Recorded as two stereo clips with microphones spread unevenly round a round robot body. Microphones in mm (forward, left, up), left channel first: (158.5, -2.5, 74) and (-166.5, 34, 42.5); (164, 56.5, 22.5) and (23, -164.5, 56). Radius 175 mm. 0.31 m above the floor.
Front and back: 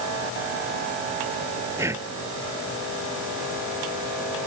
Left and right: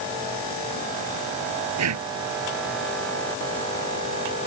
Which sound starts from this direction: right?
Breathing, at 1.8 s.